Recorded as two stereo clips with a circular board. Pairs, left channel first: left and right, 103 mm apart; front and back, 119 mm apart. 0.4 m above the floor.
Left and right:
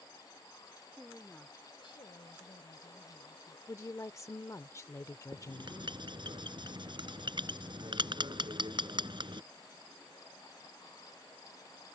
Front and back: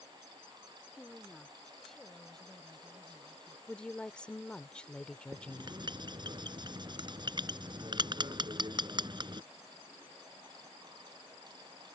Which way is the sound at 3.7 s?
75° left.